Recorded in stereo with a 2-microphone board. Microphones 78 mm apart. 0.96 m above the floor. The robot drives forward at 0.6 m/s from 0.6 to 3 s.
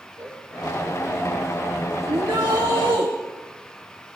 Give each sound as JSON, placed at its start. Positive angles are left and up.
{"t": 0.2, "sound": "a cowbell", "side_deg": -50, "distance_m": 3.5}
{"t": 2.1, "sound": "a shout", "side_deg": -75, "distance_m": 1.4}